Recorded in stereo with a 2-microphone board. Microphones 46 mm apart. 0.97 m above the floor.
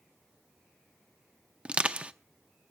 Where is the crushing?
25° right (ahead or behind), 0.6 m.